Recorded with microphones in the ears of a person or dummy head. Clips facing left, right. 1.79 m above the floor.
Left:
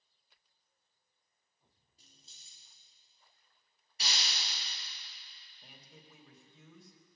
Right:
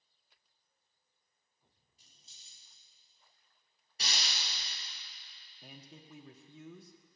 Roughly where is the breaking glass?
Right.